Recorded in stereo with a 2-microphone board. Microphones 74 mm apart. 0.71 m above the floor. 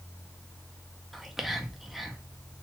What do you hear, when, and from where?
1.1 s whispering: 5° right (ahead or behind), 0.5 m